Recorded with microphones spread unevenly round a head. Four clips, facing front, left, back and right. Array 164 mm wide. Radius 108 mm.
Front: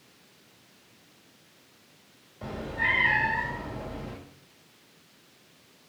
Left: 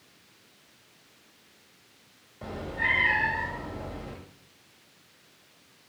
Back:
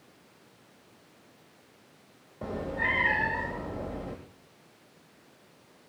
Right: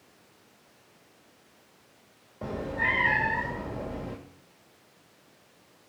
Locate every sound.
2.4 s a cat meowing: 140° right, 2.0 m